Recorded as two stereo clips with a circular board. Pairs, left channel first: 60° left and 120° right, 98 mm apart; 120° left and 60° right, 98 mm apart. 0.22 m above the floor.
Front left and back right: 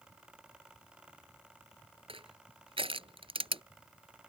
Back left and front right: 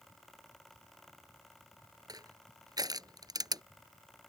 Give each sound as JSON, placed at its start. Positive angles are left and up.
{"t": 2.1, "sound": "crushing", "azimuth_deg": -105}